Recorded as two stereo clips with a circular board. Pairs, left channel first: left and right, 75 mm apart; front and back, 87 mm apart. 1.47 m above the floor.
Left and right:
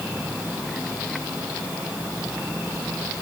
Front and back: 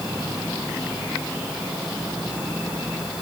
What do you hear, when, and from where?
Only background noise.